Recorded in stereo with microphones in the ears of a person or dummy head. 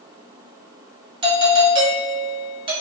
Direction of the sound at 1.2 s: 25° right (ahead or behind).